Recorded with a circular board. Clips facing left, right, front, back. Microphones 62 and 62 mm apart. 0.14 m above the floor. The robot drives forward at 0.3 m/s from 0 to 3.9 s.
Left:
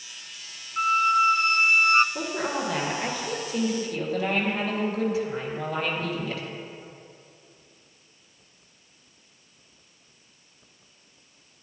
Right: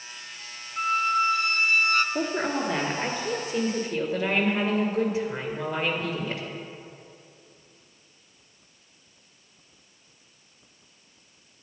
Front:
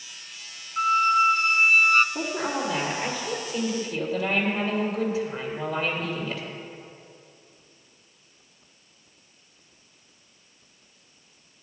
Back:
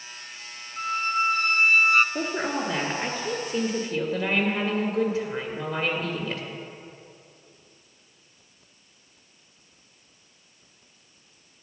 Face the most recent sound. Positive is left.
turn(degrees=-145)